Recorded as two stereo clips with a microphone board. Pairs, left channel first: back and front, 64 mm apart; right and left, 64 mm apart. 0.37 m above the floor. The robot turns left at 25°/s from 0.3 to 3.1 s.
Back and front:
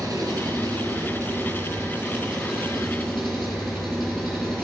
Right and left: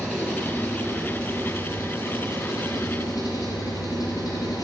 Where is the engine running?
25° right, 5 m; by 4.7 s 95° right, 5 m.